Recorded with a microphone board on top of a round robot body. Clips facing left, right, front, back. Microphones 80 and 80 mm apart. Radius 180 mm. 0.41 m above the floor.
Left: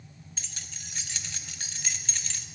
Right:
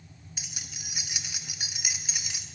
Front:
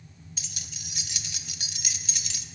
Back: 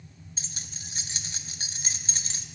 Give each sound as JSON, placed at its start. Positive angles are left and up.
{"t": 0.4, "sound": "keys jangling", "azimuth_deg": -160, "distance_m": 0.8}